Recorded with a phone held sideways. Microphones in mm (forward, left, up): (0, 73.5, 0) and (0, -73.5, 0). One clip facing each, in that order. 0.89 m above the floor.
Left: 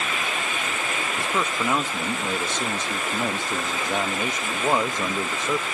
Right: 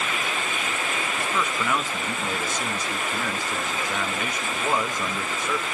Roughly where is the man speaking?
Left.